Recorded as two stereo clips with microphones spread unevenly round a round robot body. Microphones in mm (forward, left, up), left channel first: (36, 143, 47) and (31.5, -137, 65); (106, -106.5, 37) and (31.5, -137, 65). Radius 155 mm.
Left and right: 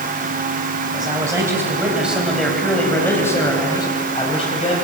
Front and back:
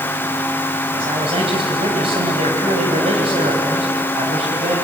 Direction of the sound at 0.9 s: 170° right.